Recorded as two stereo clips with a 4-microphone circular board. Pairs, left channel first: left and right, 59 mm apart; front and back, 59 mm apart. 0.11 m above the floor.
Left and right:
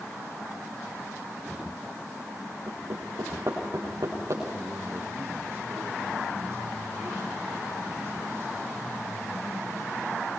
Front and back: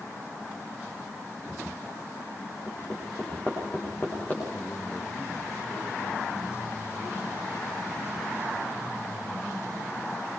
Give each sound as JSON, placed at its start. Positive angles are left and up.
{"t": 2.7, "sound": "hammering", "azimuth_deg": -60, "distance_m": 7.5}
{"t": 4.5, "sound": "a man speaking", "azimuth_deg": -45, "distance_m": 5.5}